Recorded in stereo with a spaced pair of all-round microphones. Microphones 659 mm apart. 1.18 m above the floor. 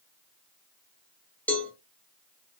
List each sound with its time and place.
1.5 s a cowbell: 5° left (ahead or behind), 0.8 m